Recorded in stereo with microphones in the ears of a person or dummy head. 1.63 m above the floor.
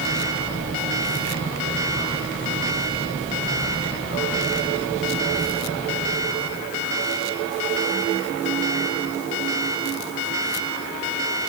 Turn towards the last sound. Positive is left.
No sound to turn to.